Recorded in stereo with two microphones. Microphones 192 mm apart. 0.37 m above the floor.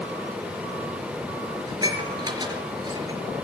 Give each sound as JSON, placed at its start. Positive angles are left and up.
{"t": 1.7, "sound": "dishes clattering", "side_deg": -20, "distance_m": 4.0}